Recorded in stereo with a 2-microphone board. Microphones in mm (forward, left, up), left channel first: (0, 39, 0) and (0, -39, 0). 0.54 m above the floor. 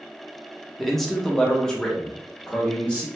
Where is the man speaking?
Centre (ahead or behind), 0.7 m; by 3.1 s 10° left (ahead or behind), 1.2 m.